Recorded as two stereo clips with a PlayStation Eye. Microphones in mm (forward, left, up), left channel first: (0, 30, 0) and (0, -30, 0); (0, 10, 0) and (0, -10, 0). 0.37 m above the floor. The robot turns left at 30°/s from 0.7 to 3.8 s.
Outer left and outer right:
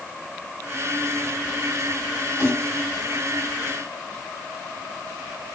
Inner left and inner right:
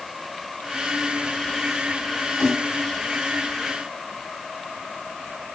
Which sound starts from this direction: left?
A snare drum, at 2.4 s.